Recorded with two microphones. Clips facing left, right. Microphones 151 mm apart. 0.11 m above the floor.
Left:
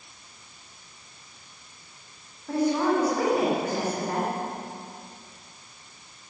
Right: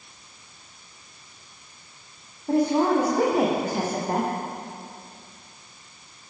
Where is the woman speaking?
35° right (ahead or behind), 7 m.